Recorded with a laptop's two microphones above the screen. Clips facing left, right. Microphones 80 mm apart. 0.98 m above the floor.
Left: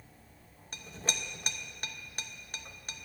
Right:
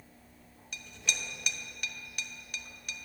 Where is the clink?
40° left (ahead or behind), 0.7 m.